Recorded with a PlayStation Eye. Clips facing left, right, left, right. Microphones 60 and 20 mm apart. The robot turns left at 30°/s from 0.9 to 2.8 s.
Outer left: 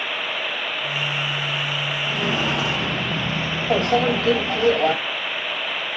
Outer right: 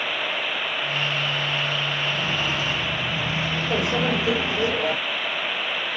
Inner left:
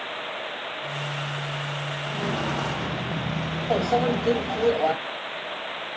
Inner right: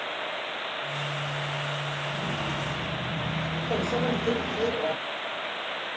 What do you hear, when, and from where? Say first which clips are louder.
2.1 s footsteps: outer left 2 dB, inner left 6 dB; 75° left (ahead or behind), 1.5 m; by 4.7 s 10° right (ahead or behind), 1.9 m
3.7 s a microwave: outer left 6 dB, inner left 5 dB; 65° left (ahead or behind), 3.5 m